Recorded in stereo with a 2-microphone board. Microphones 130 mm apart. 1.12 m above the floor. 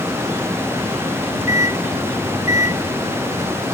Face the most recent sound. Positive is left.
turn(degrees=85)